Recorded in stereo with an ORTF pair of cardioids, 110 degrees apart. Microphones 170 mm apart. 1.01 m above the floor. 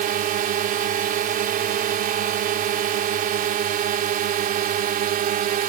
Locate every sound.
0.0 s a drone: 60° right